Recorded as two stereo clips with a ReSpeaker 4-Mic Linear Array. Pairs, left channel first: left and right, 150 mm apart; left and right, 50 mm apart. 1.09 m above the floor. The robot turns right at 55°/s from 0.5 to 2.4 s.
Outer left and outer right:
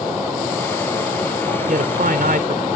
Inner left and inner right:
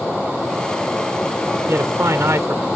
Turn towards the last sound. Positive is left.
turn(degrees=-70)